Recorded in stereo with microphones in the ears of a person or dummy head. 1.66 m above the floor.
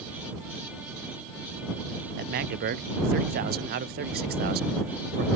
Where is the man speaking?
50° right (ahead or behind).